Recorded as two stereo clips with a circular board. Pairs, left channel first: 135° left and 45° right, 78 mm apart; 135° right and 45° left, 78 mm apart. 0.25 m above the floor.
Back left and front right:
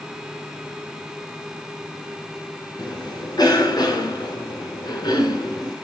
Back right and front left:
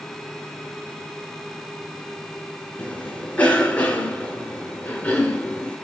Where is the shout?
I don't hear a shout.